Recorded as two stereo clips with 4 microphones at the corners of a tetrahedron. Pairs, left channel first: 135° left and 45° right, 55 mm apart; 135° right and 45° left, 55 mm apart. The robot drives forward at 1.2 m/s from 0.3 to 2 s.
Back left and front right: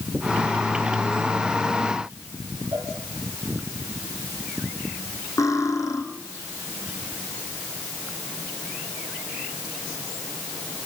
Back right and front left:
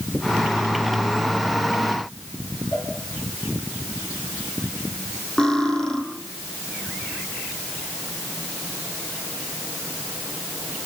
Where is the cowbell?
90° right, 10 m.